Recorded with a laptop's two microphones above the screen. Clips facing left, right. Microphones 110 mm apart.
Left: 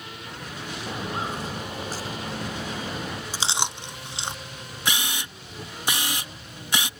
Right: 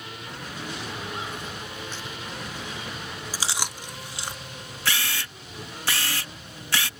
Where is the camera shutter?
20° left (ahead or behind).